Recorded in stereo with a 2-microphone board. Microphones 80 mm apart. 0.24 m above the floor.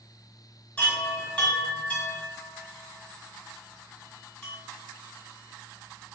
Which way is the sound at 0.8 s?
15° left (ahead or behind).